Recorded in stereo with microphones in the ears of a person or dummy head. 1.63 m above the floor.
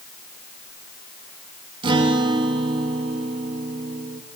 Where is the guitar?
30° right (ahead or behind), 3 m.